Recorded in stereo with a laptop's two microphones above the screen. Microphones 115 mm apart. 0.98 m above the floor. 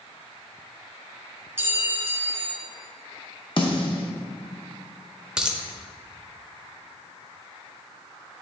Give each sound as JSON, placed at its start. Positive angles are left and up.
{"t": 1.6, "sound": "a clink", "side_deg": -20, "distance_m": 1.4}
{"t": 3.6, "sound": "a snare drum", "side_deg": 45, "distance_m": 0.9}
{"t": 5.4, "sound": "a dropped coin", "side_deg": -5, "distance_m": 0.7}